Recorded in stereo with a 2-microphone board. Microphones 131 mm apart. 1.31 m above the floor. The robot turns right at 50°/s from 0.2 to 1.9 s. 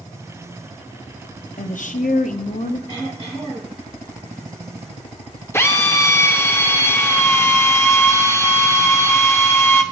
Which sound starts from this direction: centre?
A drill, at 5.5 s.